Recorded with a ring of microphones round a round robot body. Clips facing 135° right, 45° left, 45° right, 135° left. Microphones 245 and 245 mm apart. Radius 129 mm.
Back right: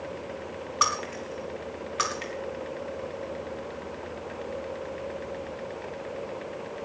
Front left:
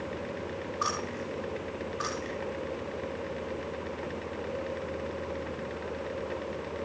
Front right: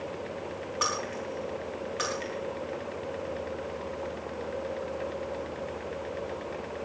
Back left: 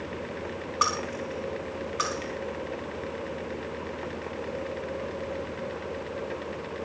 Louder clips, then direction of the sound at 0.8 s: Even, back left 3 dB; 145° right.